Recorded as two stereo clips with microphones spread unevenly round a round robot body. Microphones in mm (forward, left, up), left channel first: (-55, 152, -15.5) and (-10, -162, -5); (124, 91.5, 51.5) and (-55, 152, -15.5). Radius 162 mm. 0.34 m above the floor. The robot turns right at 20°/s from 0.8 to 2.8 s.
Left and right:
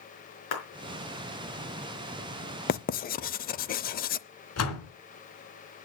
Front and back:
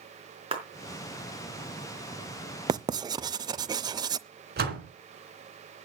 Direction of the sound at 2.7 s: 140° left.